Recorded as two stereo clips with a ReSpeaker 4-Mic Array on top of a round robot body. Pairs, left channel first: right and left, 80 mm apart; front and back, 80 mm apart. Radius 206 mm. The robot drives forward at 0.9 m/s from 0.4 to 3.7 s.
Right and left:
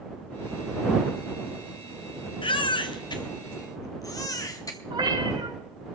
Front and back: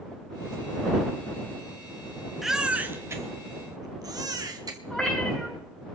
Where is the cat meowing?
85° left, 5.5 m.